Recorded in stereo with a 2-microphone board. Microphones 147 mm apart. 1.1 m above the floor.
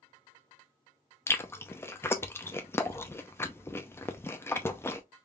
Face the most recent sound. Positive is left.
turn(degrees=15)  # may be behind; listen again after turning